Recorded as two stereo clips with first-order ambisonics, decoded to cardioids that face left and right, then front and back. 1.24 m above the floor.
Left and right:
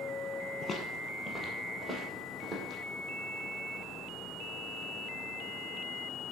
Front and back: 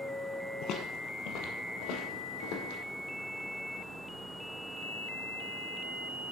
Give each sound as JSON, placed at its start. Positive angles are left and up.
{"t": 0.6, "sound": "footsteps", "azimuth_deg": 25, "distance_m": 1.7}